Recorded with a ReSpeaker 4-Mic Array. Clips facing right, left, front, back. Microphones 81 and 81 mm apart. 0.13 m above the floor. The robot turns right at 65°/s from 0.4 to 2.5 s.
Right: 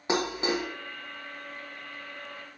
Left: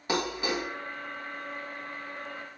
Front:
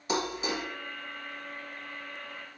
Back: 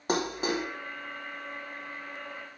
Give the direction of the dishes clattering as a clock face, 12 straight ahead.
5 o'clock.